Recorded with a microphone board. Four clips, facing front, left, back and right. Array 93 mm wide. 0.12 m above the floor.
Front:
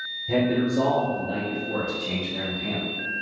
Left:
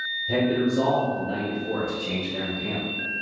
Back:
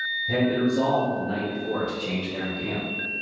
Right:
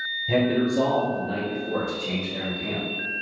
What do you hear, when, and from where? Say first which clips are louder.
0.3 s a man speaking: right 1 dB, front 1 dB; 80° right, 2.0 m; by 2.8 s 175° right, 2.5 m